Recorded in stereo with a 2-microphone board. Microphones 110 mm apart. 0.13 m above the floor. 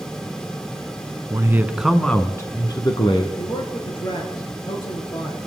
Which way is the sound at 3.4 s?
50° left (ahead or behind).